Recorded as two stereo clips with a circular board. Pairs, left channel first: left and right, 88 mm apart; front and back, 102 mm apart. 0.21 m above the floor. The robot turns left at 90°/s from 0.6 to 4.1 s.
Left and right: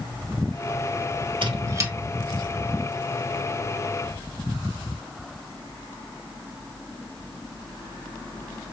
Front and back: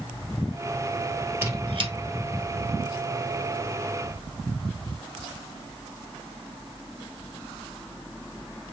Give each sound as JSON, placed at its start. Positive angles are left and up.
{"t": 1.4, "sound": "a squeak", "azimuth_deg": -110, "distance_m": 2.0}